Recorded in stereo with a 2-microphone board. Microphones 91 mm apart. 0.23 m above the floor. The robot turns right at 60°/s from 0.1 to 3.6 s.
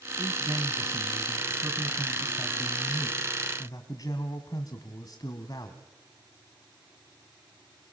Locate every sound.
0.2 s a man speaking: 125° right, 1.6 m; by 5.8 s 80° left, 1.6 m